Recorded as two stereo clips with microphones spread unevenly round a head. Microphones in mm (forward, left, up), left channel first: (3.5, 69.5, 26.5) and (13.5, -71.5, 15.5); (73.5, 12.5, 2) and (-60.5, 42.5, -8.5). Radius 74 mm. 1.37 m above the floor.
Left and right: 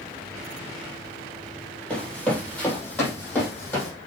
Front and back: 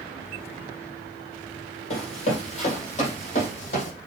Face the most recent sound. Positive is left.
turn(degrees=20)